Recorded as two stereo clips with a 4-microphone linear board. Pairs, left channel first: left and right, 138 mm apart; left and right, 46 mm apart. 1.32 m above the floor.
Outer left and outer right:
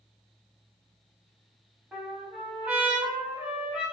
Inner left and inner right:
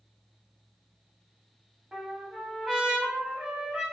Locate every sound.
1.9 s a trumpet: 10° right (ahead or behind), 0.9 m